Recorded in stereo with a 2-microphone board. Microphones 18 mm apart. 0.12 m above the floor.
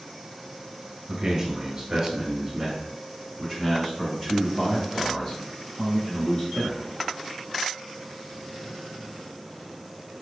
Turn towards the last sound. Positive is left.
turn(degrees=55)  # may be behind; listen again after turning